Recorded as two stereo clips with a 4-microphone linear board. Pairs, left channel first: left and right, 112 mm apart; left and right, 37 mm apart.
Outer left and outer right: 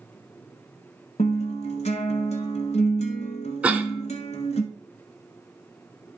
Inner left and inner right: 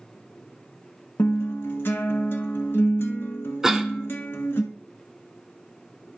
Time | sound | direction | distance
1.2 | a guitar | 75° left (ahead or behind) | 1.1 m
3.6 | a cough | 10° right (ahead or behind) | 1.0 m